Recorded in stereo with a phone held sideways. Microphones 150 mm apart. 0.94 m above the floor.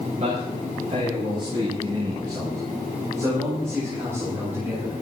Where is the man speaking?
50° right (ahead or behind), 5.5 m; by 4.9 s 10° right (ahead or behind), 9.5 m.